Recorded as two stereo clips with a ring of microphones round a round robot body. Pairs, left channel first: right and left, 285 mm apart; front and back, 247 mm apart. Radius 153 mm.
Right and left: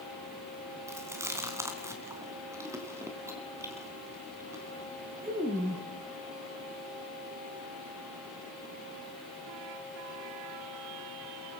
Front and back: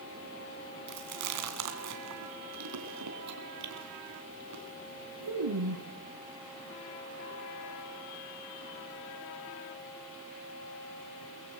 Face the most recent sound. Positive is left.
turn(degrees=170)